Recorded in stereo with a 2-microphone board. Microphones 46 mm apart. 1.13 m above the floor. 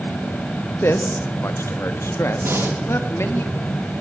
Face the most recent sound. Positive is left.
turn(degrees=-70)  # may be behind; listen again after turning